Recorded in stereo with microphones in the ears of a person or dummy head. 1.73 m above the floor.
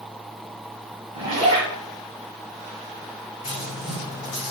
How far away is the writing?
About 1.9 m.